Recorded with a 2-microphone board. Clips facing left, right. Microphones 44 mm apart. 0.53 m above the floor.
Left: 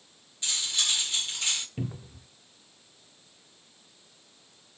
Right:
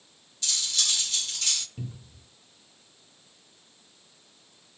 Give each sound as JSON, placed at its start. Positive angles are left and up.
{"t": 0.4, "sound": "cutlery clinking", "side_deg": 25, "distance_m": 0.6}
{"t": 1.8, "sound": "a cupboard door", "side_deg": 45, "distance_m": 0.6}